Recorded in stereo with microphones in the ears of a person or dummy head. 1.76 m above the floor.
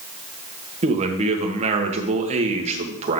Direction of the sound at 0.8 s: 35° right (ahead or behind).